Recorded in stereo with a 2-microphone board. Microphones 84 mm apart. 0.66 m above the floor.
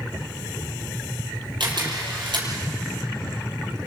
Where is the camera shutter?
70° right (ahead or behind), 6 m.